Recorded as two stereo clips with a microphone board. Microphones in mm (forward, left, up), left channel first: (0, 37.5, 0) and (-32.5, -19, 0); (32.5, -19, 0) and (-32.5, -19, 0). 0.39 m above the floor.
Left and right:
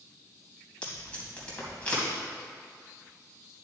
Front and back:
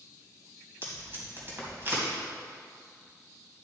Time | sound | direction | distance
0.8 | tape being pulled | 130° left | 2.5 m